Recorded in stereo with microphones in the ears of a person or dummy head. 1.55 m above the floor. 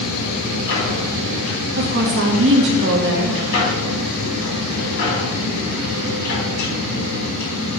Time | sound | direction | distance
0.0 | a machine running | 70° left (ahead or behind) | 3 m
1.8 | a woman speaking | 60° right (ahead or behind) | 1.3 m